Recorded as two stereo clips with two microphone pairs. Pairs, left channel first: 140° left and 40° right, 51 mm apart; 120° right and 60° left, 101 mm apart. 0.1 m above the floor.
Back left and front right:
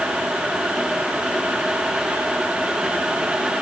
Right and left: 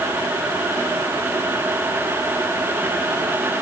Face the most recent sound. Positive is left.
No sound to turn to.